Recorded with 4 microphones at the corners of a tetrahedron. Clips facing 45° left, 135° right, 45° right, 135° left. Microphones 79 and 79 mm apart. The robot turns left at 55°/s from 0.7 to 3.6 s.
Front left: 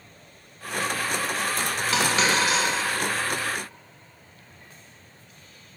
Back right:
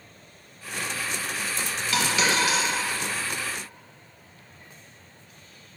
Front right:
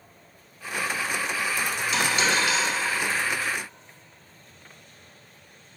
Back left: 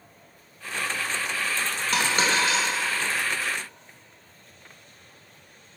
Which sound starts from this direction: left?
A dropped coin, at 1.9 s.